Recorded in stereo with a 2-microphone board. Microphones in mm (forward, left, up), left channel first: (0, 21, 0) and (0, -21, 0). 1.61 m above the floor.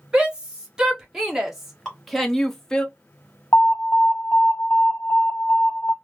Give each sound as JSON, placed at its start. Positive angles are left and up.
{"t": 0.1, "sound": "a shout", "side_deg": -25, "distance_m": 1.9}
{"t": 1.9, "sound": "dripping", "side_deg": 5, "distance_m": 1.8}
{"t": 3.5, "sound": "an alarm", "side_deg": 80, "distance_m": 1.3}